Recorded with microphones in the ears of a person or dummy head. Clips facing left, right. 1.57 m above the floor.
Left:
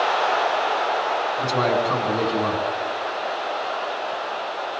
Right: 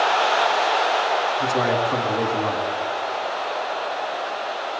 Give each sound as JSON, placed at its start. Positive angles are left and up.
{"t": 1.4, "sound": "a man speaking", "side_deg": 65, "distance_m": 7.5}